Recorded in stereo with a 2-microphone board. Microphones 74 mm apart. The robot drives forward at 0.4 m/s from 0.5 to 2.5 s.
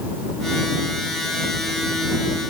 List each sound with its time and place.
Only background noise.